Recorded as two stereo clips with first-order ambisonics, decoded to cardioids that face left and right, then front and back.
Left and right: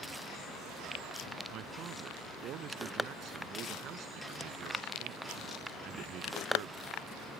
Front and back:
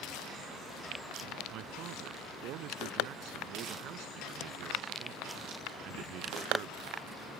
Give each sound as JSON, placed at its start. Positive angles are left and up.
{"t": 1.5, "sound": "a man speaking", "azimuth_deg": -140}